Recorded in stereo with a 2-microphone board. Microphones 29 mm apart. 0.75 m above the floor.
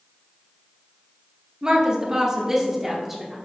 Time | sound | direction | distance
1.6 | a woman speaking | 30° right (ahead or behind) | 1.4 m